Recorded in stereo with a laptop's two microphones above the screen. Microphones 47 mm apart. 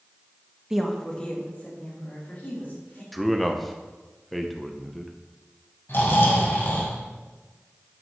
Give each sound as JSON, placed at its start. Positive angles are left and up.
{"t": 0.7, "sound": "a woman speaking", "side_deg": -15, "distance_m": 0.7}
{"t": 3.1, "sound": "a man speaking", "side_deg": 0, "distance_m": 0.7}
{"t": 5.9, "sound": "snoring", "side_deg": 55, "distance_m": 2.5}